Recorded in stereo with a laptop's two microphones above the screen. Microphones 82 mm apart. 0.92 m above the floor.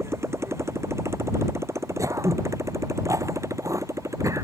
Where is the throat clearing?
40° right (ahead or behind).